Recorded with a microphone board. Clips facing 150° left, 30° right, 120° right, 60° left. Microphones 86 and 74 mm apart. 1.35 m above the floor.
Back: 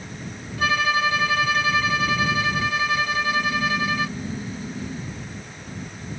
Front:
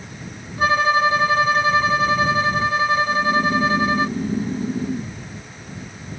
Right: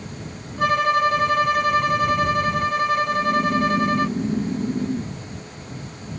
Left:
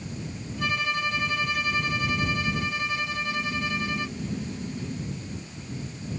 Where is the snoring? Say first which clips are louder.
Front 5 dB, right 11 dB; 75° right.